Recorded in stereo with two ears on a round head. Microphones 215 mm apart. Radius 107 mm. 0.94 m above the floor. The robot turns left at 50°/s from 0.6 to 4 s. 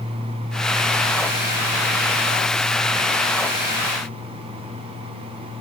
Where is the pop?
I don't hear a pop.